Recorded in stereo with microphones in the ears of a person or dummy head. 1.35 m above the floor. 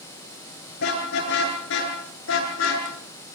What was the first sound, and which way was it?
A car horn, 70° left (ahead or behind).